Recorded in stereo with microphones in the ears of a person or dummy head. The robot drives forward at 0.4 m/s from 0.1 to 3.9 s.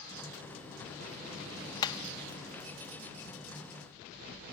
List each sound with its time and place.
1.8 s hammering: 25° left (ahead or behind), 1.2 m